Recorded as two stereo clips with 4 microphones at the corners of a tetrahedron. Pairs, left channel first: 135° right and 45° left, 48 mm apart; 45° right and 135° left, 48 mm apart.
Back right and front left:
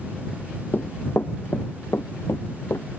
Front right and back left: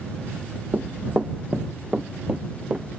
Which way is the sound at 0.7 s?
Straight behind.